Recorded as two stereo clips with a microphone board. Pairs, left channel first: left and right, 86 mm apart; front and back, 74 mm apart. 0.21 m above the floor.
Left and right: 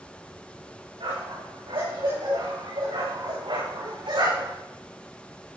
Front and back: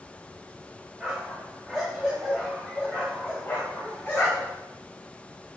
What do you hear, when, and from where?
1.0 s a dog barking: 95° right, 7.5 m; by 4.6 s 65° right, 9.5 m